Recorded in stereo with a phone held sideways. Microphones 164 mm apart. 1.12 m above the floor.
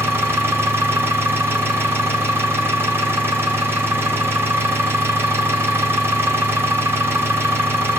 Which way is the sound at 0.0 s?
15° right (ahead or behind).